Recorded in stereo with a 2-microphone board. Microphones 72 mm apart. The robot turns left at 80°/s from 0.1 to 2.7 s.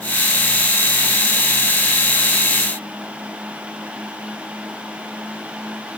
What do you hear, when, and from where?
Only background noise.